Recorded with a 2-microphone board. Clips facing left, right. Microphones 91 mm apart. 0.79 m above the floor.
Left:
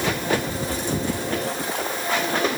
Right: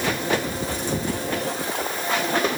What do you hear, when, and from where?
Only background noise.